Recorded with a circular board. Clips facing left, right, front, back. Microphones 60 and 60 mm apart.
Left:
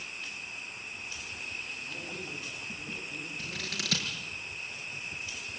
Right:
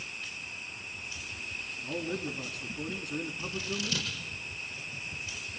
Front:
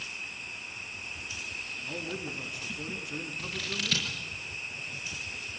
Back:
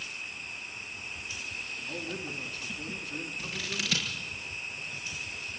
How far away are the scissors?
About 6.5 m.